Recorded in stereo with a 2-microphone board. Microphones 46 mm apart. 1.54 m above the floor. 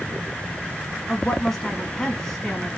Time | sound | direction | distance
1.1 | a woman speaking | 10° left (ahead or behind) | 2.5 m